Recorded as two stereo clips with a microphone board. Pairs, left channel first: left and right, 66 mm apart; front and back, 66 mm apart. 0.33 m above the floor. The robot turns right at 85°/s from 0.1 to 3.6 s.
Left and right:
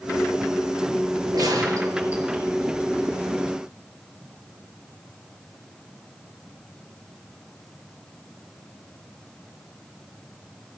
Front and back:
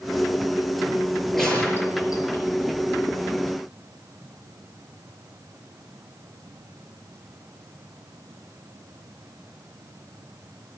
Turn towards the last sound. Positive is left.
turn(degrees=105)